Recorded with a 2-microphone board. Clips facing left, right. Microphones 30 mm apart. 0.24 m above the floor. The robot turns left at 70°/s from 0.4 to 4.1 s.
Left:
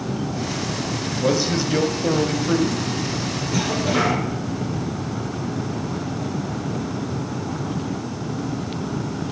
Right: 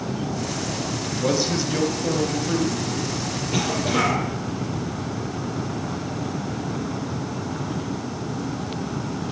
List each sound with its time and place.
1.2 s a man speaking: 5° left (ahead or behind), 1.0 m; by 2.8 s 20° left (ahead or behind), 1.0 m
3.5 s a cough: 145° right, 5.5 m; by 4.2 s 170° left, 5.5 m